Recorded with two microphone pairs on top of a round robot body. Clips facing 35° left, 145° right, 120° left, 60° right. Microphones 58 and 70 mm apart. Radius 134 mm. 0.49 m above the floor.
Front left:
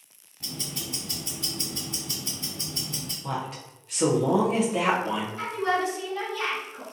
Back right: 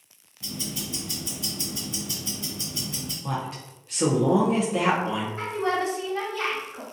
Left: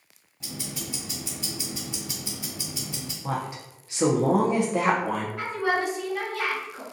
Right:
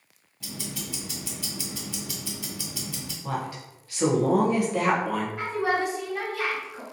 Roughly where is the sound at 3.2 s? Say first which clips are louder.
Back right 1 dB, left 1 dB; behind left.